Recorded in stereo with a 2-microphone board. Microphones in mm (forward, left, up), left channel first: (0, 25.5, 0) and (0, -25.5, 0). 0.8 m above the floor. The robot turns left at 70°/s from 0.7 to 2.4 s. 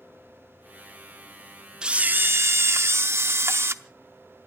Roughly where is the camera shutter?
Ahead.